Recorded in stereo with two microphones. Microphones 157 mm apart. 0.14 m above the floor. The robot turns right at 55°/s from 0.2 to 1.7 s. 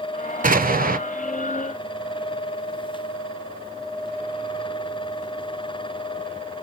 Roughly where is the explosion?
Right.